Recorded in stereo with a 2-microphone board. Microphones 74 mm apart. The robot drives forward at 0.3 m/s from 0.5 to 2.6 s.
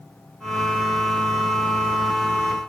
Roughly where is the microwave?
No microwave in this recording.